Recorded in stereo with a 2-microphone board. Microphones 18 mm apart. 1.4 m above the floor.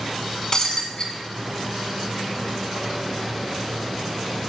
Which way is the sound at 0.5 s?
45° left (ahead or behind).